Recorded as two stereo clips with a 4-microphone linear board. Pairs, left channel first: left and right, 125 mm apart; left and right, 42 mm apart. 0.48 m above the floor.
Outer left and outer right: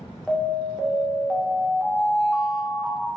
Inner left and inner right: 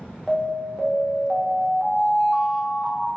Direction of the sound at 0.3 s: Centre (ahead or behind).